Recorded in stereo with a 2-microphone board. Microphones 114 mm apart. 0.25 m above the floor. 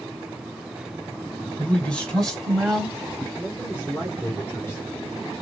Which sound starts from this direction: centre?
A man speaking, at 1.6 s.